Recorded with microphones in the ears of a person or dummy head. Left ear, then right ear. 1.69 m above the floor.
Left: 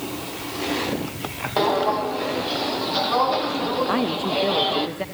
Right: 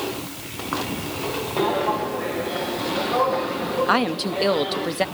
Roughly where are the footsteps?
Left.